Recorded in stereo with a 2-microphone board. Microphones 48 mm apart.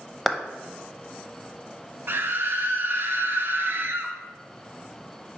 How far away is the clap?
About 0.6 m.